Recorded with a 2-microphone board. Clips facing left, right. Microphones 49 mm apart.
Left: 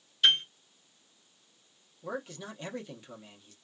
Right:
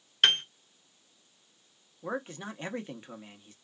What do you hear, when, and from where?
0.2 s a piano: 60° right (ahead or behind), 0.6 m
2.0 s a man speaking: 35° right (ahead or behind), 0.9 m